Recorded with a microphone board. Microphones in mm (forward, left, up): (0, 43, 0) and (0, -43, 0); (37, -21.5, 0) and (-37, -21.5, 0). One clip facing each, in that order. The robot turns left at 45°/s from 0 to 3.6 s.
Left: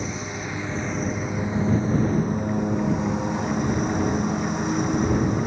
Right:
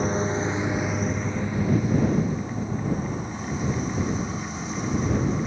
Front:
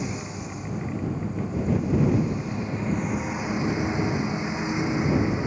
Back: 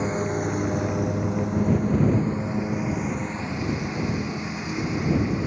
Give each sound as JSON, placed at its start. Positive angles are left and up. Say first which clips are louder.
{"t": 0.0, "sound": "a lawn mower", "louder": "right 6 dB, back 8 dB", "azimuth_deg": -130}